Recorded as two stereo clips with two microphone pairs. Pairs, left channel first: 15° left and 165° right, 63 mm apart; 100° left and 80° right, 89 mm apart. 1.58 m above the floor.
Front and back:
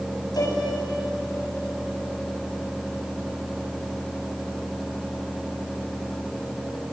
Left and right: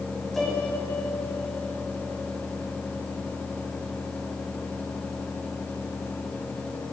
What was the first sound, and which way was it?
A piano, 10° left.